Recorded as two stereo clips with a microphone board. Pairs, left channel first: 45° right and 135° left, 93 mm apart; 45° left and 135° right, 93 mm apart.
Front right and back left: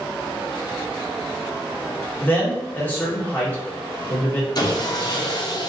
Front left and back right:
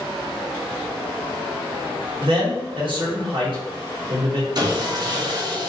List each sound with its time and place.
2.2 s a man speaking: 115° right, 1.5 m
4.5 s sawing: 90° right, 0.8 m